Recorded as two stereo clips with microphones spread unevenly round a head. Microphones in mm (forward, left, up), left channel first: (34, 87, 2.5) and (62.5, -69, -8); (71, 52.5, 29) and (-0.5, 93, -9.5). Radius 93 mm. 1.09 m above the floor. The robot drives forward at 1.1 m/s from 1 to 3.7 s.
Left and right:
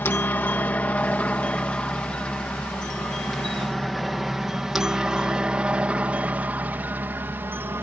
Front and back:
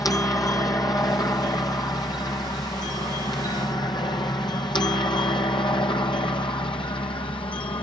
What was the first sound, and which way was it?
A helicopter, 30° left.